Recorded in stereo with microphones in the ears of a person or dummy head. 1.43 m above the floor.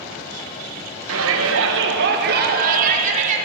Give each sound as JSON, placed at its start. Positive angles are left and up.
{"t": 1.1, "sound": "a shout", "side_deg": -80, "distance_m": 1.6}